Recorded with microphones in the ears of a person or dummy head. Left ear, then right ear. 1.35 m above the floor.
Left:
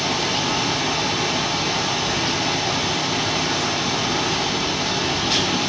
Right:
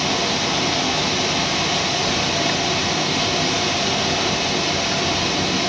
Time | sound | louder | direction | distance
0.0 | running water | right 1 dB | 30° right (ahead or behind) | 4 m